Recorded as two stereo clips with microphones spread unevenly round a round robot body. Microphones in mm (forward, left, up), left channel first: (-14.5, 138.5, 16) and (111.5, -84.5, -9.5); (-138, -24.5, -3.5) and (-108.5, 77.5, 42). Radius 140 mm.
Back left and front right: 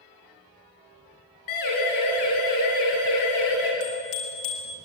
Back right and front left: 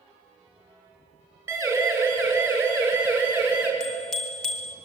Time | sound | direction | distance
1.5 | a siren | 145° left | 8 m
3.8 | a bicycle bell | 170° left | 5.5 m